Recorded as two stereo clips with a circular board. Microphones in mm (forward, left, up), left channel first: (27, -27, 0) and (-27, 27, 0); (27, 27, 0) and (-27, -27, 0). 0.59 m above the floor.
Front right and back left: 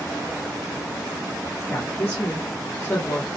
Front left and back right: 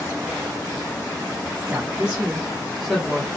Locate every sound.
1.7 s a woman speaking: 90° right, 1.2 m; by 3.3 s 5° right, 1.0 m